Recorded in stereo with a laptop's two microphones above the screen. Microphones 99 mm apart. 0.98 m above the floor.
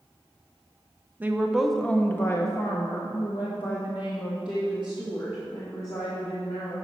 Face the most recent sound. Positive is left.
turn(degrees=55)  # may be behind; listen again after turning